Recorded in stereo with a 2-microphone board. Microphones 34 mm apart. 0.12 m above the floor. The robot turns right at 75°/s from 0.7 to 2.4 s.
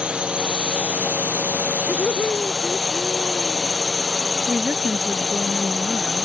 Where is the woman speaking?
45° right (ahead or behind).